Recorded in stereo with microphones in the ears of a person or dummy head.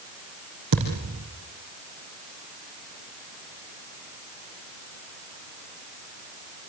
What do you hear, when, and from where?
0.7 s a thud: 60° right (ahead or behind), 5 m